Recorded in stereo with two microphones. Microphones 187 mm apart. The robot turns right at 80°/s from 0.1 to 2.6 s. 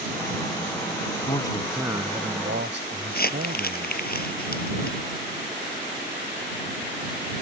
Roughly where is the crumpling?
Left.